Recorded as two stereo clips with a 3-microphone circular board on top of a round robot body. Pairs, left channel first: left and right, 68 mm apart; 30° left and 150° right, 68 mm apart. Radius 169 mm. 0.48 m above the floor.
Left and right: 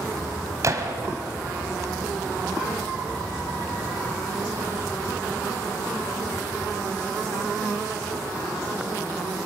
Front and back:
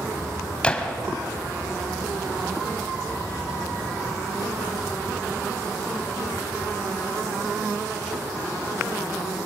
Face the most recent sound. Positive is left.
turn(degrees=-45)